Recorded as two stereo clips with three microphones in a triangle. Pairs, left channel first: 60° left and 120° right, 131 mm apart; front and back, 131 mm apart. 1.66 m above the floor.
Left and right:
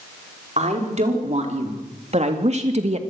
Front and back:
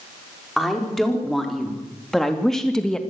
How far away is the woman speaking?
About 5 m.